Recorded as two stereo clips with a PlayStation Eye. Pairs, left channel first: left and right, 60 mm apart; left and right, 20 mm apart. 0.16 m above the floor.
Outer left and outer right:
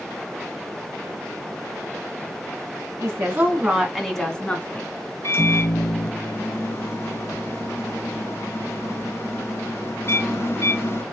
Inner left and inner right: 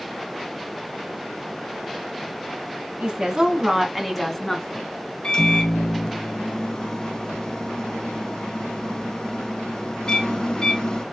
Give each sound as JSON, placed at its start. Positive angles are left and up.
{"t": 3.0, "sound": "a woman speaking", "side_deg": -40, "distance_m": 1.3}
{"t": 5.2, "sound": "a microwave", "side_deg": 45, "distance_m": 1.3}